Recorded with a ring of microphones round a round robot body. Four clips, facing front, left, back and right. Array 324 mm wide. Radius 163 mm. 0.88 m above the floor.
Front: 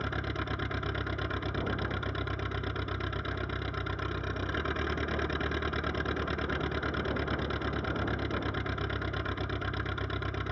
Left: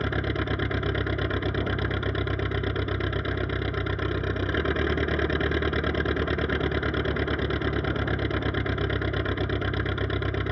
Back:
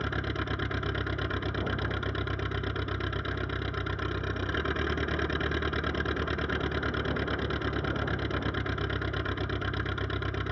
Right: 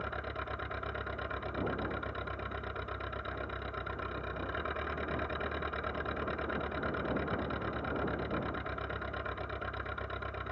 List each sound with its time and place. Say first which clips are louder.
0.0 s an engine running: left 11 dB, back 2 dB; 95° left